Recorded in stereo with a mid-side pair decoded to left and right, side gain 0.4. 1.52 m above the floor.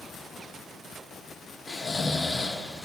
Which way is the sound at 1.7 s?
40° left.